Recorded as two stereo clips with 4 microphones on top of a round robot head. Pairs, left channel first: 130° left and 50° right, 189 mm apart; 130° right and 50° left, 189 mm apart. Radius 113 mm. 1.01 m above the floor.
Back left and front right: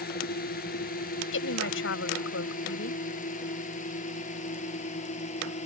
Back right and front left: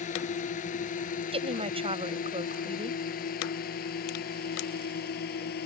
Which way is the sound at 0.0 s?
175° left.